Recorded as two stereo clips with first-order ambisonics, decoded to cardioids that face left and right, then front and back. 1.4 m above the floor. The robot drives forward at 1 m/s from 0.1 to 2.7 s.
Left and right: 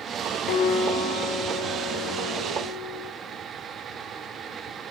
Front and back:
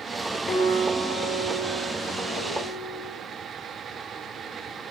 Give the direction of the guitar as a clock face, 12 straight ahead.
10 o'clock.